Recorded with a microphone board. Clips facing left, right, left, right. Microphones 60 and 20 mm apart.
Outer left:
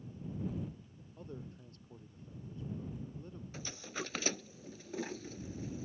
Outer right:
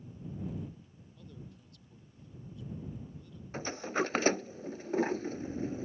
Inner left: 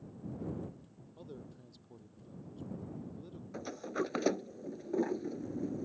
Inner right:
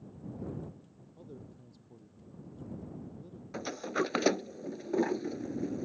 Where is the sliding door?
45° right (ahead or behind).